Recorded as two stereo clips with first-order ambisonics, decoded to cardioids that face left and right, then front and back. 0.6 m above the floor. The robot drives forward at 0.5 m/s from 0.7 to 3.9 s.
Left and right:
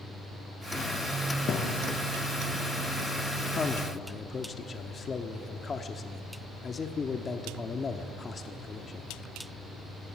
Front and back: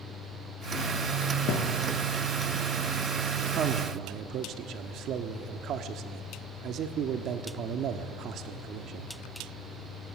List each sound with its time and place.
1.5 s a thud: 35° left, 3 m
3.5 s a man speaking: 140° left, 1.0 m; by 9.1 s 150° left, 1.1 m